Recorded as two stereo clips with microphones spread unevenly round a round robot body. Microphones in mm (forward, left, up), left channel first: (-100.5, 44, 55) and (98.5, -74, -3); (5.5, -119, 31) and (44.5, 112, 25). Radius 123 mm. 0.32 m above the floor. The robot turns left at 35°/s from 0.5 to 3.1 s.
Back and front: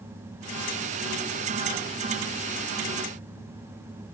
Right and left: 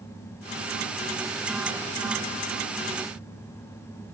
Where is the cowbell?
I don't hear a cowbell.